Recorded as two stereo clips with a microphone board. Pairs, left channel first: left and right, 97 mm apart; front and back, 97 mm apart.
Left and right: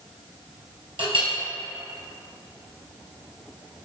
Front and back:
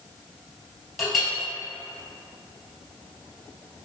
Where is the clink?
90° right, 1.9 m.